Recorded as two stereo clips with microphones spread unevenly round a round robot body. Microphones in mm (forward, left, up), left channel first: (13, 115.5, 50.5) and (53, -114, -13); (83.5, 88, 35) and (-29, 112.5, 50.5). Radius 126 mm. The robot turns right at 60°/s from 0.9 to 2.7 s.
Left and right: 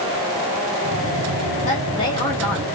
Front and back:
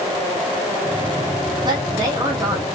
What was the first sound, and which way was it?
A woman speaking, 160° left.